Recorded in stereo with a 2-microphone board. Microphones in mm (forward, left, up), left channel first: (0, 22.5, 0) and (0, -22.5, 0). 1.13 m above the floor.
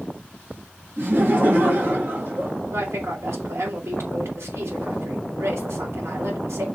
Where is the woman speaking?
85° right, 4 m.